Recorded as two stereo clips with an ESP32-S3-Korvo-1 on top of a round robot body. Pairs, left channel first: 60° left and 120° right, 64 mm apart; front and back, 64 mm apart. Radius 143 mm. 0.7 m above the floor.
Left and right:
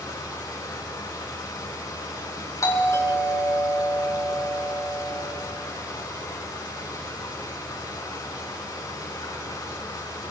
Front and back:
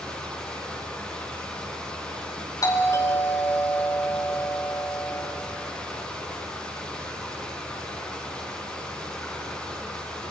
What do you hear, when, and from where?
0.0 s running water: 75° left, 6 m
2.6 s a doorbell: 25° left, 5 m